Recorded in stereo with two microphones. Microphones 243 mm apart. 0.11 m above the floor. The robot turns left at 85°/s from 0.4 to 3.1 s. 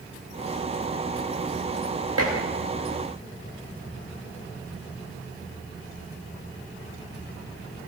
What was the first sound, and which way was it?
Dishes clattering, 75° right (ahead or behind).